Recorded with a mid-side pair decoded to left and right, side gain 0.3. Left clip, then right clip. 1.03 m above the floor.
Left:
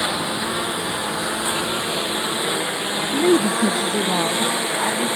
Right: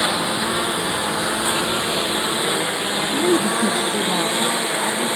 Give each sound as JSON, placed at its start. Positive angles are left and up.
{"t": 0.0, "sound": "a lawn mower", "azimuth_deg": -30}
{"t": 3.1, "sound": "a woman speaking", "azimuth_deg": 20}